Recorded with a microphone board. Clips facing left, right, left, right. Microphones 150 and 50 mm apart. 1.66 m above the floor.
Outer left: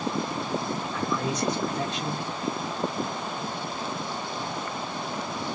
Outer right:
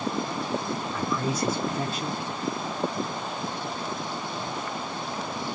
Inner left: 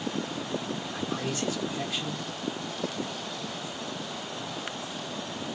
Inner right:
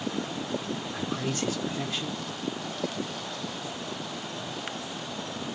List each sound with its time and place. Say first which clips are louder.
0.9 s a man speaking: even, inner right 1 dB; 5° right (ahead or behind), 0.5 m